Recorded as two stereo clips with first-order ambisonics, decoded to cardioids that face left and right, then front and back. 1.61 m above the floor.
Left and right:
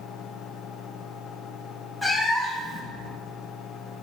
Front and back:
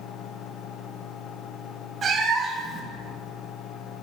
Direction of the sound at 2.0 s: 155° left.